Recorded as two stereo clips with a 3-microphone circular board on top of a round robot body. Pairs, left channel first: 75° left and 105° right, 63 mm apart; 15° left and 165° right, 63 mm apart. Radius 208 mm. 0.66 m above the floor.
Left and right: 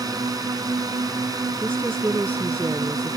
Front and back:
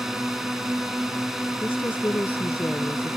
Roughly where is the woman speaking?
Ahead right.